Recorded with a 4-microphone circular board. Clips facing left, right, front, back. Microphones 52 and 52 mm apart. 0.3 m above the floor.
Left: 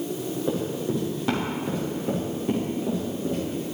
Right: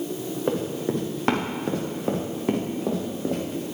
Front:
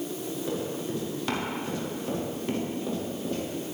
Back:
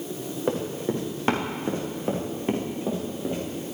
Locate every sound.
0.5 s running footsteps: 130° right, 4.5 m; by 3.6 s 105° right, 6 m